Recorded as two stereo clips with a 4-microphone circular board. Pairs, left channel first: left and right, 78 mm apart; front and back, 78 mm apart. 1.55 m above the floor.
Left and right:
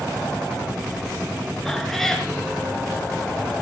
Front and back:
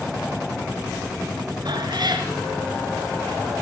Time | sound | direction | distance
1.6 | a cat meowing | 175° left | 3.5 m